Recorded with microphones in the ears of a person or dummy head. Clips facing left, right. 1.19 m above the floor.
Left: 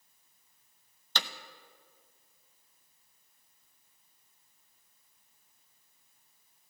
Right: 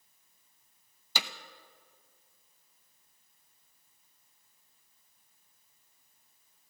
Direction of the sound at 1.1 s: Centre (ahead or behind).